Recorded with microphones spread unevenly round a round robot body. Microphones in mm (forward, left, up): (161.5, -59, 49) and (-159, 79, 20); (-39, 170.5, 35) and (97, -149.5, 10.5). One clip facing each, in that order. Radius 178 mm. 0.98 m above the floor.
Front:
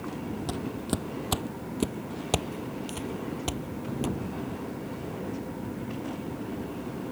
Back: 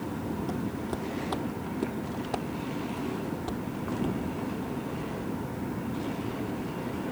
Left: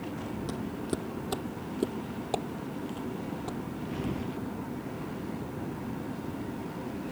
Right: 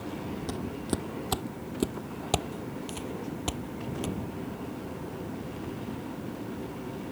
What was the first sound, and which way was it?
Footsteps, 15° left.